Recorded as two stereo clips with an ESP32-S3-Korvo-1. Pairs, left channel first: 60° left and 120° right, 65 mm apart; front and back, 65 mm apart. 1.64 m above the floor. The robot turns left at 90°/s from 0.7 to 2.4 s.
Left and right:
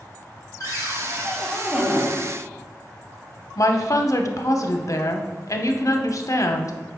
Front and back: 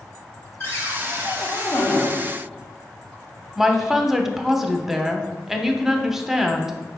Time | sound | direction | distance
0.6 | a cupboard door | 45° left | 0.7 m
3.6 | a woman speaking | 95° left | 0.5 m